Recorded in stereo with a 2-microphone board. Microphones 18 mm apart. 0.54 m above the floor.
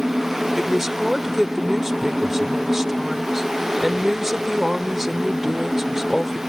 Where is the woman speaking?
15° right (ahead or behind).